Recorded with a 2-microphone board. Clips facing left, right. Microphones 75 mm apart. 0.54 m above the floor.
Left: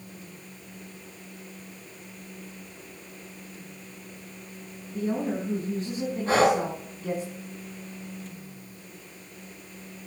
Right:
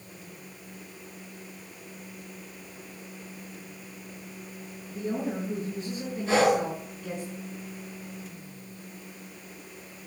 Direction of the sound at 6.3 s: 40° left (ahead or behind).